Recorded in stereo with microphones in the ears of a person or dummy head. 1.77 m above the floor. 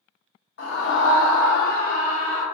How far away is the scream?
About 0.8 m.